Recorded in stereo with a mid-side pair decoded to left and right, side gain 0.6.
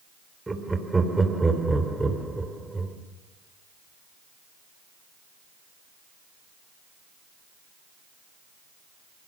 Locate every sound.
0.5 s laughter: 15° right, 3.5 m